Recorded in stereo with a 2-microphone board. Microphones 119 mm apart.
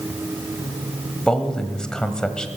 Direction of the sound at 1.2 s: 5° left (ahead or behind).